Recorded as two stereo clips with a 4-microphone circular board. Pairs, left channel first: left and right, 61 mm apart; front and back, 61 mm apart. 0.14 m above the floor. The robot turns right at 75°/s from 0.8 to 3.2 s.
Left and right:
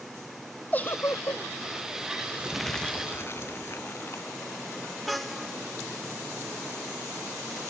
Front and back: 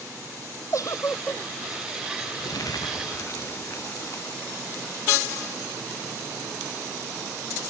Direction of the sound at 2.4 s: 20° right.